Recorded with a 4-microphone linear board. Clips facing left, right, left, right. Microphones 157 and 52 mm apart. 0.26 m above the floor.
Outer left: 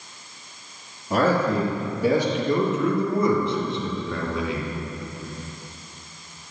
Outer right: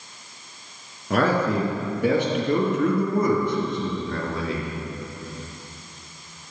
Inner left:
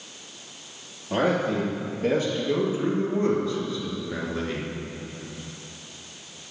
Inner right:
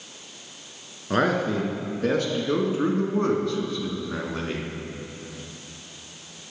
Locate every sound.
1.1 s a man speaking: 70° right (ahead or behind), 3 m; by 4.7 s 35° right (ahead or behind), 2 m